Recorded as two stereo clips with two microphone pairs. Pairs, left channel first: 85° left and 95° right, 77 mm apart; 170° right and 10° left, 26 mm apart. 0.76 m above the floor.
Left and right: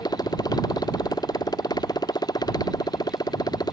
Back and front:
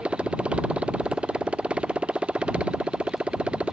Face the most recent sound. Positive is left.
turn(degrees=60)